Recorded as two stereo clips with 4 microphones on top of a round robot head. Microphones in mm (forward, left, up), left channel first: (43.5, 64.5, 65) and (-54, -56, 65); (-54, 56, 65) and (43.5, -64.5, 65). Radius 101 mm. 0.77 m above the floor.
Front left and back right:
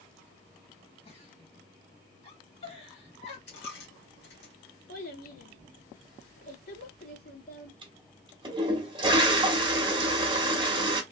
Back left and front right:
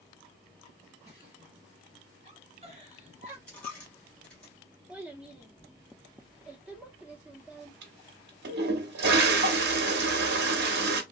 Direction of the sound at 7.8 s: 65° right.